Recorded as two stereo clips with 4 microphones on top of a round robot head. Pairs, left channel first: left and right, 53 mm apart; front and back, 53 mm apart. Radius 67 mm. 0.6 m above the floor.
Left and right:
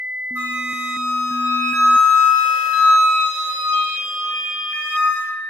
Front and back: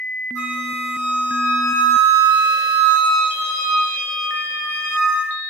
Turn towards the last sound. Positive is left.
turn(degrees=-35)